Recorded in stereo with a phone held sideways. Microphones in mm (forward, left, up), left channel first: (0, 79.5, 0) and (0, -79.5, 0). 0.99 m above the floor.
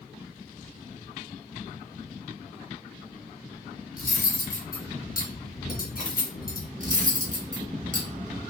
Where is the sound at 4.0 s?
65° left (ahead or behind), 0.8 m.